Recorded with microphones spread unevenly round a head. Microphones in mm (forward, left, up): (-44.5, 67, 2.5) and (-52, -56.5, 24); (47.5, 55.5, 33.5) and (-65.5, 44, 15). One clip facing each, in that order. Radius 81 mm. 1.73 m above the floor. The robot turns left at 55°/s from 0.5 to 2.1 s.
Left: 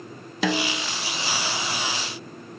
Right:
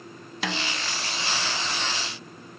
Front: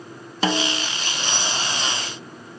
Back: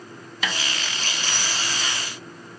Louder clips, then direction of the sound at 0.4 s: Left 7 dB, front 8 dB; 65° left.